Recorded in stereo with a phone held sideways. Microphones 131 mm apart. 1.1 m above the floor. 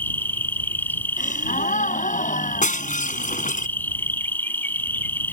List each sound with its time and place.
0.0 s an insect: 15° left (ahead or behind)
1.2 s a gasp: 80° left
2.6 s breaking glass: 85° left